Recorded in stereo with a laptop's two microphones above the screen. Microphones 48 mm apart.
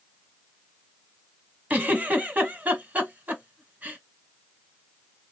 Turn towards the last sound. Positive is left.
turn(degrees=-30)  # may be behind; listen again after turning